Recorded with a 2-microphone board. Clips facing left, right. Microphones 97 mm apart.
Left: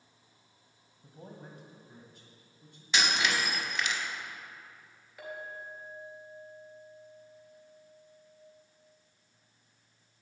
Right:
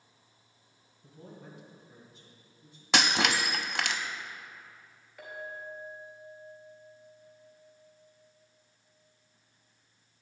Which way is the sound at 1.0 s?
30° left (ahead or behind).